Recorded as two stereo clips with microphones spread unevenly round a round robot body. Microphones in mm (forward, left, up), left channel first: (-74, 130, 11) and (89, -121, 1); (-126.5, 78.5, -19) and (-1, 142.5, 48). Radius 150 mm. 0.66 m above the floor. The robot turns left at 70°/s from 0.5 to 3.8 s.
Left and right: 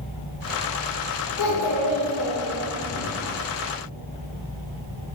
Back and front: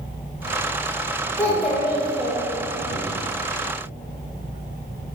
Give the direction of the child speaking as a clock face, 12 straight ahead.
7 o'clock.